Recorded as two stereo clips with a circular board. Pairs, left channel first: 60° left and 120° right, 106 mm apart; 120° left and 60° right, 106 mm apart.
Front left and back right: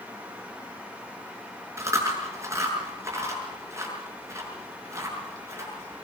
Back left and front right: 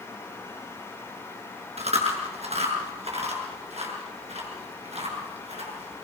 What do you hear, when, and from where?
1.8 s chewing: 55° right, 7 m